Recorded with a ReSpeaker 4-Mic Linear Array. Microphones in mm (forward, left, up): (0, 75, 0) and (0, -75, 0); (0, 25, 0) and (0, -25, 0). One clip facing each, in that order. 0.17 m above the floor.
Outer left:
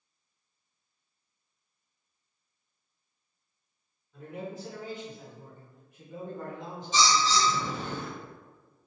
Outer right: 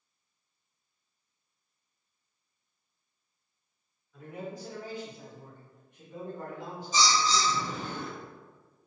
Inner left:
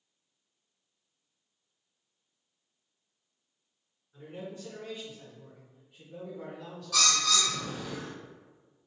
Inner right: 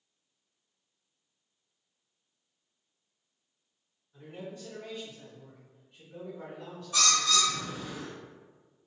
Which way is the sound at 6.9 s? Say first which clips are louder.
Outer left 1 dB, inner right 1 dB; 85° left.